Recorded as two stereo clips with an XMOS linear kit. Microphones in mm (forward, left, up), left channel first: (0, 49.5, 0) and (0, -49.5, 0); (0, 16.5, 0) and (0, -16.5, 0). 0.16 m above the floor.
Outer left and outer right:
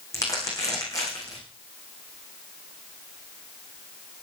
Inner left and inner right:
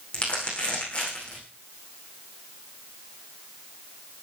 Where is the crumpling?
35° left (ahead or behind), 9 m.